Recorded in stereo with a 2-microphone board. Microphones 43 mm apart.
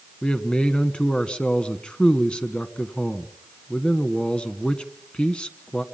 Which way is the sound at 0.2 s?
25° left (ahead or behind).